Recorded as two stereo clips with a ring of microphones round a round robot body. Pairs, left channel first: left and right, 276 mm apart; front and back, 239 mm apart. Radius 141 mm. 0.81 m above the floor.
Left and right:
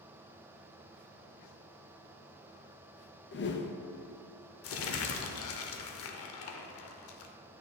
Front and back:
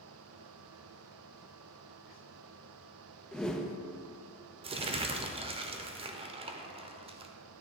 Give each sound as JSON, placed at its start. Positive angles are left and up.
{"t": 3.3, "sound": "a whoosh", "azimuth_deg": 85, "distance_m": 0.6}
{"t": 4.6, "sound": "crumpling", "azimuth_deg": 120, "distance_m": 0.6}